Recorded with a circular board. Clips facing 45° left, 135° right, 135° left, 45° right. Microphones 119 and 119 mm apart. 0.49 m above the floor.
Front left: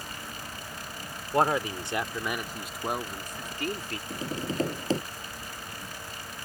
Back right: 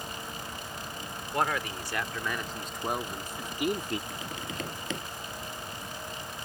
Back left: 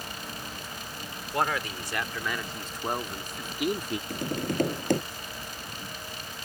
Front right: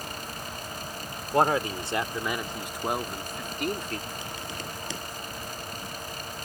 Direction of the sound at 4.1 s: 100° left.